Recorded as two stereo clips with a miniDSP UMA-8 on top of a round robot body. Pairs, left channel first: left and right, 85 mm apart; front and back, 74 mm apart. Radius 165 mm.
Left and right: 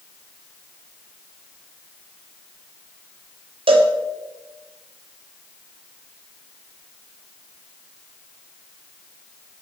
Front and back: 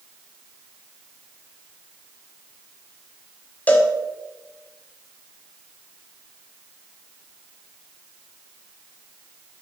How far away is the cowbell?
About 1.5 m.